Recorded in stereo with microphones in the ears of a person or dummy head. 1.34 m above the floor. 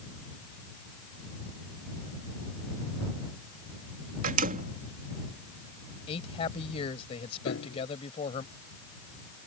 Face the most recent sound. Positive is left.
turn(degrees=70)  # may be behind; listen again after turning